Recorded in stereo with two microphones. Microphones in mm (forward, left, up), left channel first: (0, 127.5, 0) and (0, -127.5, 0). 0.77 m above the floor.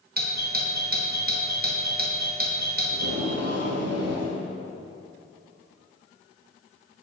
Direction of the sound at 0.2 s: 40° right (ahead or behind).